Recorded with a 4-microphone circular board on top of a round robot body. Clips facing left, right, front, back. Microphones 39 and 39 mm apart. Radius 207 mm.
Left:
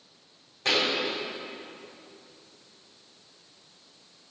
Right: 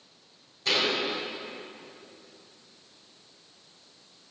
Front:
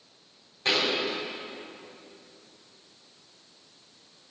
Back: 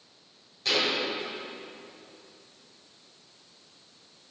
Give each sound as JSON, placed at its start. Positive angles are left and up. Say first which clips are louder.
{"t": 0.7, "sound": "a thud", "louder": "left 1 dB, front 1 dB", "azimuth_deg": 60, "distance_m": 3.0}